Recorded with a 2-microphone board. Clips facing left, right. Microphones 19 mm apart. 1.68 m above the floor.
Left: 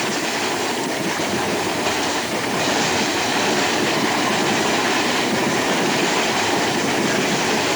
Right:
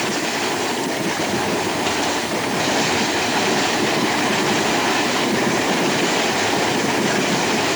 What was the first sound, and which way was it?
Only background noise.